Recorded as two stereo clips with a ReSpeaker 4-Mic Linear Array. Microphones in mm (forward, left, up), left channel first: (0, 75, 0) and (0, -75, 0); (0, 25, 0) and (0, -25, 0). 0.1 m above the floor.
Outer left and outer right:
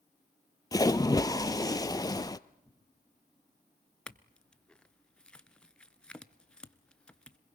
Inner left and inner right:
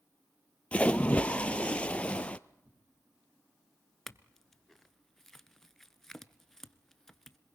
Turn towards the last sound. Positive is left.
turn(degrees=5)  # may be behind; listen again after turning